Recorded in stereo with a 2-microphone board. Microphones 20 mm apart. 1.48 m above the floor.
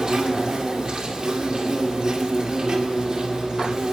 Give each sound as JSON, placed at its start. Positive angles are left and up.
{"t": 0.0, "sound": "an insect", "side_deg": -40, "distance_m": 2.0}